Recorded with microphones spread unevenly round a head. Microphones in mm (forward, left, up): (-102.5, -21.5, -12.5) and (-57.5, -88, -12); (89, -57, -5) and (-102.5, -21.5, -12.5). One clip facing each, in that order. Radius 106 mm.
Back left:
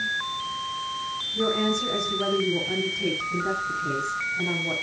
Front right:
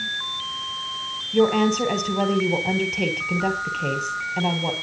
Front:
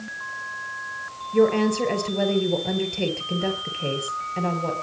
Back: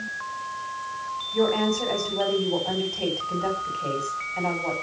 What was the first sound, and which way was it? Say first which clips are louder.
A woman speaking: front right 7 dB, front 4 dB; 55° right.